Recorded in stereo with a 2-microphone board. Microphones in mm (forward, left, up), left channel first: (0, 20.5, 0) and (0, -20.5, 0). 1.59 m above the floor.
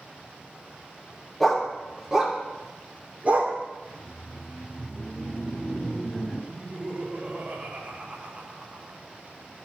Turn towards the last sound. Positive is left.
turn(degrees=-30)  # may be behind; listen again after turning